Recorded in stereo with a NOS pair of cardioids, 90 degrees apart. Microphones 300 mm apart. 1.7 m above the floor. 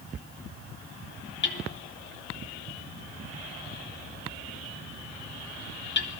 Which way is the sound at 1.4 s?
40° left.